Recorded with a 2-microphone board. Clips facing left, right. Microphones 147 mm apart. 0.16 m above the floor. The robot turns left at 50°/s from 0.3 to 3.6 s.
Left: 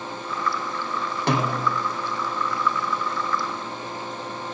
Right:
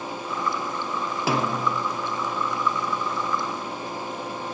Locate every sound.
1.3 s a snare drum: 5° right (ahead or behind), 3 m; by 1.8 s 20° left (ahead or behind), 3 m